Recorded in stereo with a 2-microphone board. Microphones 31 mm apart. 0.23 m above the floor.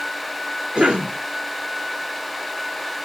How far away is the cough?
About 2.5 m.